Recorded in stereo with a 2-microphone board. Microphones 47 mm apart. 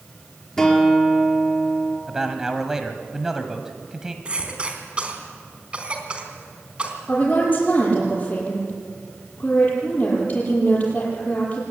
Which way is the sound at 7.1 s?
35° left (ahead or behind).